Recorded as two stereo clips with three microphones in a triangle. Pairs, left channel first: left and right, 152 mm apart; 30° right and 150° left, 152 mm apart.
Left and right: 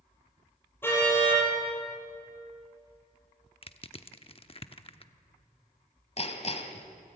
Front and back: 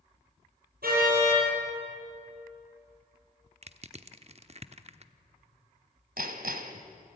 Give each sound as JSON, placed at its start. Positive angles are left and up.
{"t": 0.8, "sound": "a car horn", "azimuth_deg": 165, "distance_m": 7.0}
{"t": 3.6, "sound": "crushing", "azimuth_deg": 125, "distance_m": 0.8}
{"t": 6.2, "sound": "hammering", "azimuth_deg": 135, "distance_m": 1.6}